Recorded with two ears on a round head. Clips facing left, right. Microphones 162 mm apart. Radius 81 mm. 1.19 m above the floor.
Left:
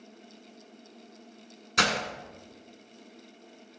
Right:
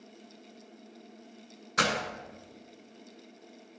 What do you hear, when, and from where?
1.8 s breaking glass: 35° left (ahead or behind), 1.3 m